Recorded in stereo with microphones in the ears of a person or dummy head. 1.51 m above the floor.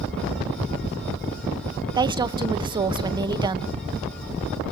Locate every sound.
1.9 s a woman speaking: 20° right (ahead or behind), 0.8 m